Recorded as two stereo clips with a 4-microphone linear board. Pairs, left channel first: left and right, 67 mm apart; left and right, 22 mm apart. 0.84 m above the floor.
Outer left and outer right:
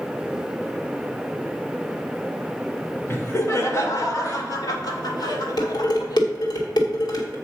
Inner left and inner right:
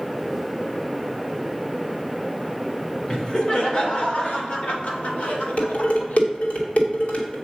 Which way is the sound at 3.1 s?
35° left (ahead or behind).